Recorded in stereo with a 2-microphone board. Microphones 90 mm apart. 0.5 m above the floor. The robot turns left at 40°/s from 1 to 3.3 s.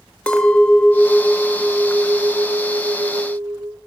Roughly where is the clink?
Ahead.